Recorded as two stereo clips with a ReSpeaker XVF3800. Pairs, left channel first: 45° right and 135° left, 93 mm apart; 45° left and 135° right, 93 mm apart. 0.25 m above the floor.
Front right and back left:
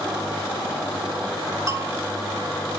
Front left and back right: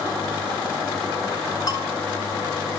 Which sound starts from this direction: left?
A bell, at 1.7 s.